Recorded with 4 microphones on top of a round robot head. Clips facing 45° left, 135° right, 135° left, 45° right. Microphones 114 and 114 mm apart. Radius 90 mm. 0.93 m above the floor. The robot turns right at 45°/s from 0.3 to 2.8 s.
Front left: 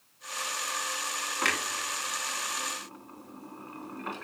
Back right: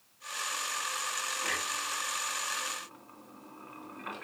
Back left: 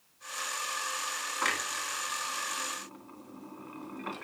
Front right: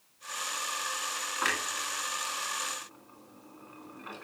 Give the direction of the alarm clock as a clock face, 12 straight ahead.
No alarm clock in this recording.